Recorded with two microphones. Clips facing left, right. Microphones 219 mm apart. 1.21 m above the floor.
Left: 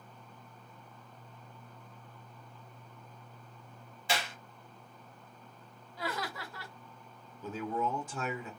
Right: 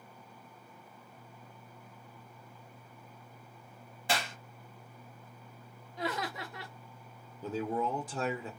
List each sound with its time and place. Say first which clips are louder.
4.1 s a clap: right 1 dB; 55° right (ahead or behind), 1.0 m
6.0 s laughter: right 2 dB; 20° right (ahead or behind), 0.6 m
7.4 s a man speaking: right 2 dB; 35° right (ahead or behind), 0.7 m